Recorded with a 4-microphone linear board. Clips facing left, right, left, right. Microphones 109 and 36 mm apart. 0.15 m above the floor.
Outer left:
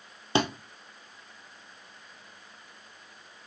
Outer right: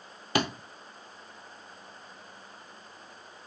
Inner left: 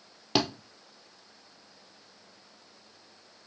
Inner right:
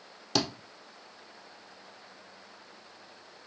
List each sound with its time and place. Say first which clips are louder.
0.3 s a thud: outer left 2 dB, inner left 2 dB; 30° left (ahead or behind), 1.6 m